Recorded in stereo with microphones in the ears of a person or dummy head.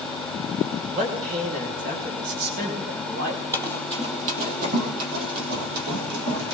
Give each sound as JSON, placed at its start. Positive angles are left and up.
{"t": 0.9, "sound": "a man speaking", "side_deg": -45, "distance_m": 4.5}
{"t": 3.5, "sound": "running footsteps", "side_deg": -15, "distance_m": 3.0}